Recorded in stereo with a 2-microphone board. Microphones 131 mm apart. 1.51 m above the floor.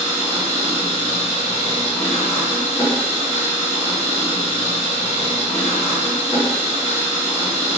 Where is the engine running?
35° left (ahead or behind), 1.9 m.